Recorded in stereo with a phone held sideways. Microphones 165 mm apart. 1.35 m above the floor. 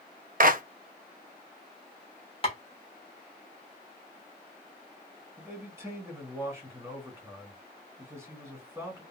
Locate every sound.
0.4 s a clap: 60° right (ahead or behind), 0.6 m
2.4 s tapping: 35° left (ahead or behind), 1.1 m
5.4 s a man speaking: 15° right (ahead or behind), 1.9 m